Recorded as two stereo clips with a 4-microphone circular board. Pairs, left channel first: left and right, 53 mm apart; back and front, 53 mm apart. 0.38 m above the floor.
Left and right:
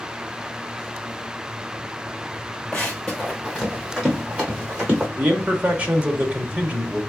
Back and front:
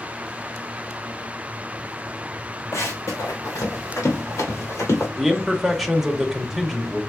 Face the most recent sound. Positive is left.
turn(degrees=-80)